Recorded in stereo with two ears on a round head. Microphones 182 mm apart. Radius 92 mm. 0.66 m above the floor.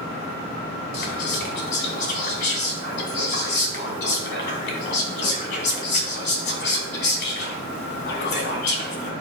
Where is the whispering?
60° left (ahead or behind), 2.5 m.